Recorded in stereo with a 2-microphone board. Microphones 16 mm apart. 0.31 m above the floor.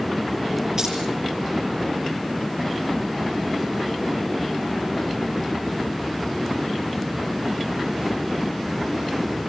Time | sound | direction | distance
0.8 | keys jangling | 40° right (ahead or behind) | 7.5 m